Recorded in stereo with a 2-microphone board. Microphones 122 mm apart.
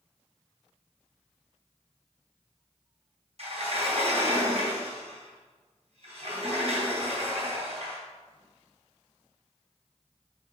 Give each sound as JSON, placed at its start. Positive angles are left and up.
{"t": 3.4, "sound": "a sliding door", "side_deg": -60, "distance_m": 3.0}